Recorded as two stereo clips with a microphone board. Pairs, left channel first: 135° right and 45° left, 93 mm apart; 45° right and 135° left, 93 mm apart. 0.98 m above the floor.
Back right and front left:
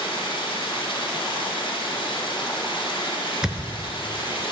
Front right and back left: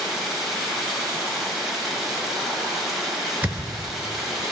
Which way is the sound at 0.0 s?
135° right.